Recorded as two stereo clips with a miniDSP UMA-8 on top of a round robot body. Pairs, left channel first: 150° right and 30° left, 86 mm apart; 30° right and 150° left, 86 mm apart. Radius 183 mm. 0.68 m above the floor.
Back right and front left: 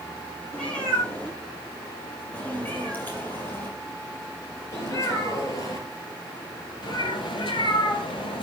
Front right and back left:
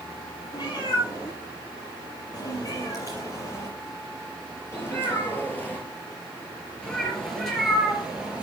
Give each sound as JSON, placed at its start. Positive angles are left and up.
{"t": 0.5, "sound": "a cat meowing", "azimuth_deg": -70, "distance_m": 6.0}